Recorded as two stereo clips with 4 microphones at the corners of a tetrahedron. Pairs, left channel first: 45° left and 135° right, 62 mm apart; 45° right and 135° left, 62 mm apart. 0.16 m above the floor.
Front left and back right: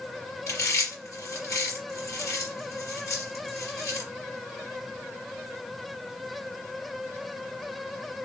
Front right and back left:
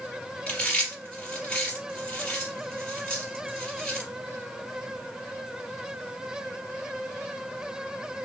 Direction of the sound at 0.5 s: 25° left.